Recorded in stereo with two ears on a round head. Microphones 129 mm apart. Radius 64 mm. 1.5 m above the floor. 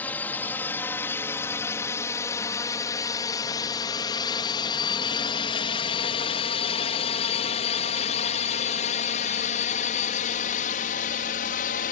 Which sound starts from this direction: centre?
A drone, at 0.0 s.